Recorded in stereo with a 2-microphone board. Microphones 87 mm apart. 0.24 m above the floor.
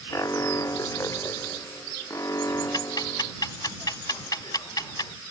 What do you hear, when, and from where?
0.1 s an alarm: 40° left (ahead or behind)
2.7 s ticking: 50° left (ahead or behind)